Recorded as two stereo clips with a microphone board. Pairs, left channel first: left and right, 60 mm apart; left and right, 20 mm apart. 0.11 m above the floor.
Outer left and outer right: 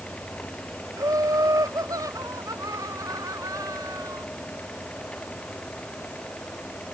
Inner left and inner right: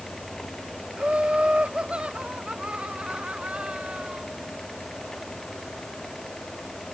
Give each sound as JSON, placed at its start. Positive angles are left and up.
{"t": 1.0, "sound": "laughter", "side_deg": -70}